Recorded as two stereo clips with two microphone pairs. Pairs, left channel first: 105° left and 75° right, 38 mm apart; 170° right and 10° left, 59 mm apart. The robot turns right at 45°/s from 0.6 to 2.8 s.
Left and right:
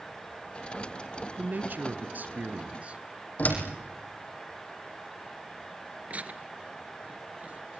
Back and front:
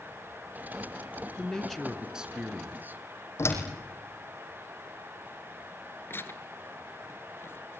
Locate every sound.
1.4 s a man speaking: 100° right, 2.5 m; by 3.0 s 35° right, 2.5 m
3.4 s a door slam: 150° left, 5.5 m
6.1 s tearing paper: 125° right, 1.4 m